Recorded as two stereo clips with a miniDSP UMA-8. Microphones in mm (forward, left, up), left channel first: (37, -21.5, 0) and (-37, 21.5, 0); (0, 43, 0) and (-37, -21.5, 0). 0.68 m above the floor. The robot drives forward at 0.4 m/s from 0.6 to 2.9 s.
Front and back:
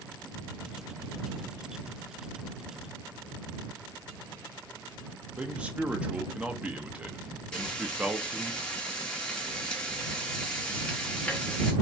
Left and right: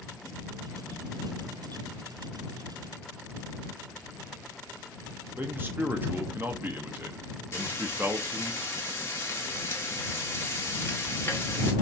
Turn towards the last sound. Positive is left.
turn(degrees=40)